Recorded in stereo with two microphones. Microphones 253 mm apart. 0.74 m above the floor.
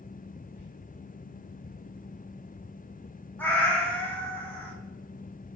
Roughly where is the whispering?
Left.